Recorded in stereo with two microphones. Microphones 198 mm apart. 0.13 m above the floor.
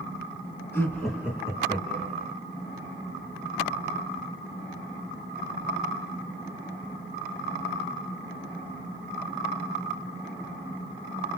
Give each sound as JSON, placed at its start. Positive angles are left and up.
{"t": 0.7, "sound": "laughter", "side_deg": 10, "distance_m": 1.5}